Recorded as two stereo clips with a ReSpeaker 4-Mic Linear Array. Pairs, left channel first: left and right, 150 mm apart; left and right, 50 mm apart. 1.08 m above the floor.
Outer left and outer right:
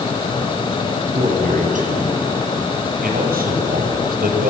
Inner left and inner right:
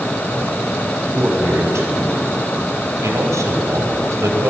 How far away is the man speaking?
About 7.5 m.